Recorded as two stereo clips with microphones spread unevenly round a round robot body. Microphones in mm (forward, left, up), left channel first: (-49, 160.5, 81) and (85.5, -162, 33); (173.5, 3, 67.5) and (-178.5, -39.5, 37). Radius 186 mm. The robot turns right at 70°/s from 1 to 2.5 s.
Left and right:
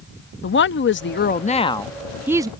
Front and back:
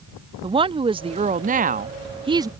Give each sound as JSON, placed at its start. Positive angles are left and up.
{"t": 0.4, "sound": "a woman speaking", "azimuth_deg": 145}